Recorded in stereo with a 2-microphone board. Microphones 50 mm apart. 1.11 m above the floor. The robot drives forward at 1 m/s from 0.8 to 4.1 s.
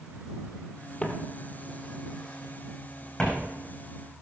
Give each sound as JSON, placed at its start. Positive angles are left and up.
{"t": 1.0, "sound": "footsteps", "side_deg": 20, "distance_m": 1.8}